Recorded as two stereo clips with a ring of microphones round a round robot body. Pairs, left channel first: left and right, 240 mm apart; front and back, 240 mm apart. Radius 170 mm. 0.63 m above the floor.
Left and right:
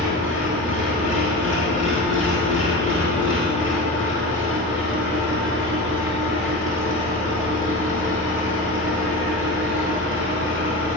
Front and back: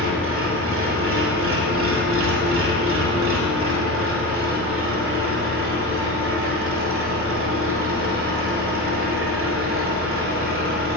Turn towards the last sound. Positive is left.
turn(degrees=145)